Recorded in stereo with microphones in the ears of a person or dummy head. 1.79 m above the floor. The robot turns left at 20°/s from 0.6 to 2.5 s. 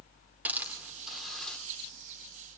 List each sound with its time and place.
0.5 s a hiss: 10° right (ahead or behind), 2.5 m; by 1.6 s 10° left (ahead or behind), 2.5 m